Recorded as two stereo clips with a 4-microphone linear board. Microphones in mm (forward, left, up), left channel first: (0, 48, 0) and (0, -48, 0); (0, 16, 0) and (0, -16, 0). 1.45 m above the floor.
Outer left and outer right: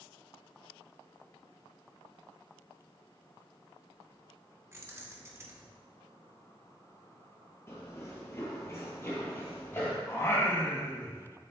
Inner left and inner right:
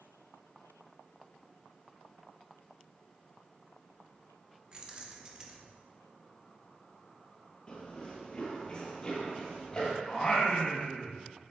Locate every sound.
4.7 s keys jangling: 30° right (ahead or behind), 0.9 m
7.7 s running footsteps: 25° left (ahead or behind), 1.6 m
10.1 s singing: 25° left (ahead or behind), 1.1 m